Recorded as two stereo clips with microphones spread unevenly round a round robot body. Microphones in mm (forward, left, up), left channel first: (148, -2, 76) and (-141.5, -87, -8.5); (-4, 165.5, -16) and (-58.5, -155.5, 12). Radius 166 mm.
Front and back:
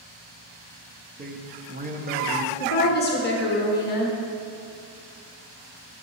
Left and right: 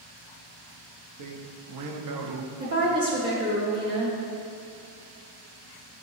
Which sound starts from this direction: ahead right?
A woman speaking, at 2.6 s.